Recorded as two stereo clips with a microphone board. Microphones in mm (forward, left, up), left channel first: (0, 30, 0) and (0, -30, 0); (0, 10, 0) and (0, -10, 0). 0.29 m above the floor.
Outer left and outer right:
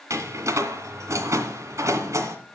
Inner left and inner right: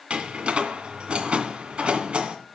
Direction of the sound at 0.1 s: 55° right (ahead or behind).